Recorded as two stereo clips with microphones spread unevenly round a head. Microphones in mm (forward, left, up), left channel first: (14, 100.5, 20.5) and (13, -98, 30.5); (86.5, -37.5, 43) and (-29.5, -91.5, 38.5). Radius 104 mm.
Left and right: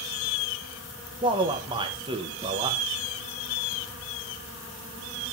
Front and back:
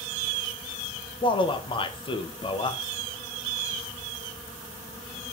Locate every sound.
1.2 s a man speaking: 25° right, 1.5 m